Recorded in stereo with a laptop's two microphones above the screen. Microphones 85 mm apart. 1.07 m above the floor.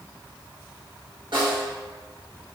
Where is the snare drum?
70° right (ahead or behind), 1.3 m.